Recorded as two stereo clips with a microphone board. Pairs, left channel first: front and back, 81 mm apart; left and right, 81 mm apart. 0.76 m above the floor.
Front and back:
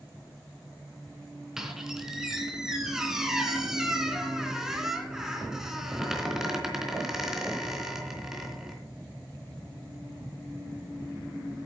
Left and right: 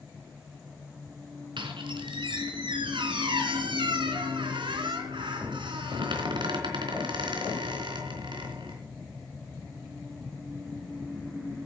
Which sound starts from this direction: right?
A squeak, at 1.6 s.